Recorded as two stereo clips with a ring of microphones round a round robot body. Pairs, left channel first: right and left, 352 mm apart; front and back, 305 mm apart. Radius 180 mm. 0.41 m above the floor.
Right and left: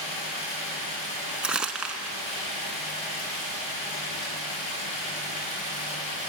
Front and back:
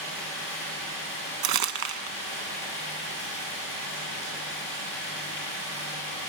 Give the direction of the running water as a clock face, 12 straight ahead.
3 o'clock.